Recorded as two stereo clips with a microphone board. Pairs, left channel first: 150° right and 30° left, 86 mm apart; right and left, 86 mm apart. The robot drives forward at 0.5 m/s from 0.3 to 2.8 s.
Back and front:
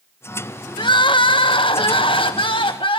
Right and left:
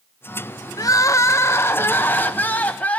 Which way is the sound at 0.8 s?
130° right.